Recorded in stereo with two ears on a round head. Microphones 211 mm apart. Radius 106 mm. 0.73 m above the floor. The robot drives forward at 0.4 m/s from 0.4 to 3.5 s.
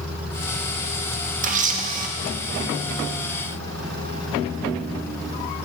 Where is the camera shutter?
35° right (ahead or behind), 1.1 m.